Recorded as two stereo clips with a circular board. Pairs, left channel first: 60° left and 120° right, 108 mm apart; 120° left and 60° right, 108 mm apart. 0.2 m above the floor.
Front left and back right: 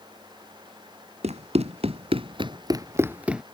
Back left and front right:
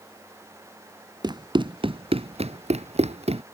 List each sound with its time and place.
1.2 s running footsteps: 110° right; by 3.4 s 35° right